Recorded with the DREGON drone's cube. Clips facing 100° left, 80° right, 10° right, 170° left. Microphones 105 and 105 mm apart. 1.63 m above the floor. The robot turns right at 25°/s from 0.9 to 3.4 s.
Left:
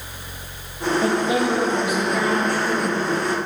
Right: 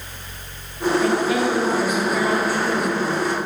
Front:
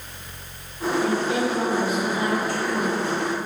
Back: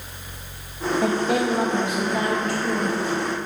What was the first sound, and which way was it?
A woman speaking, 160° left.